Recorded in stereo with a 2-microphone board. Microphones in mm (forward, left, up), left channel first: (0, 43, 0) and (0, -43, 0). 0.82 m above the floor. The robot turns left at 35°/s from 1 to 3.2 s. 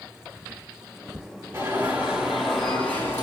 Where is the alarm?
150° right, 6 m; by 3.2 s 150° left, 6 m.